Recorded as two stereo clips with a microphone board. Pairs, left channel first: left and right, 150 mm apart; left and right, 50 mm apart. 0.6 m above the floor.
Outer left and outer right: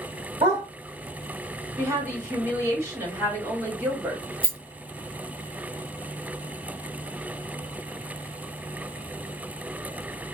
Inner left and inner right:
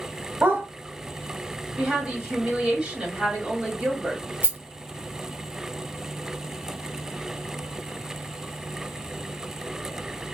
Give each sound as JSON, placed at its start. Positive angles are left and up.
{"t": 0.4, "sound": "a dog barking", "side_deg": -45, "distance_m": 1.4}
{"t": 1.8, "sound": "a woman speaking", "side_deg": -20, "distance_m": 1.8}
{"t": 4.4, "sound": "a rattle", "side_deg": -40, "distance_m": 0.9}